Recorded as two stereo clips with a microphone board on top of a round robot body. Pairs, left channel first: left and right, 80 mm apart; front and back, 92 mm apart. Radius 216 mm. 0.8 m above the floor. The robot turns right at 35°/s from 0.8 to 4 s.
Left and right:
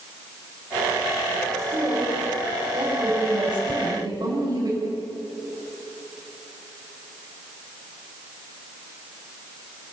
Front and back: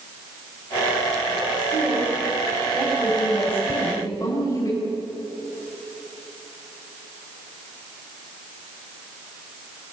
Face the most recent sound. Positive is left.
turn(degrees=140)